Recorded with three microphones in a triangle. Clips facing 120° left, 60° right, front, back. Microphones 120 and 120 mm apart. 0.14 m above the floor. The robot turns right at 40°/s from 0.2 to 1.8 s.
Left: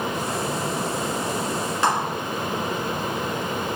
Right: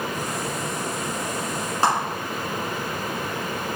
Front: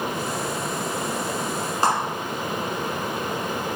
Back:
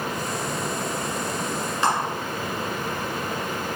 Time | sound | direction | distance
1.8 | a clap | 25° right | 1.6 m